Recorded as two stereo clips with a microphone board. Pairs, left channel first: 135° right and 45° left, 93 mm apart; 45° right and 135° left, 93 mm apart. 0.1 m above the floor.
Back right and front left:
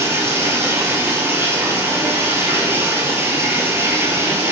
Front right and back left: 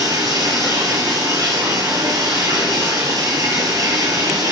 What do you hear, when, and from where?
0.0 s running water: 100° left, 0.7 m